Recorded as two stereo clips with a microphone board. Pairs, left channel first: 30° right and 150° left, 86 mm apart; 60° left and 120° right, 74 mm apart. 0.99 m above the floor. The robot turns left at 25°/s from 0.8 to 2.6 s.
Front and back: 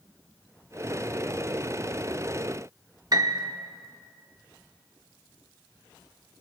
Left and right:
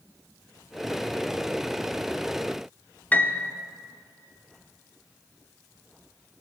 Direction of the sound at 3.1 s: 125° left.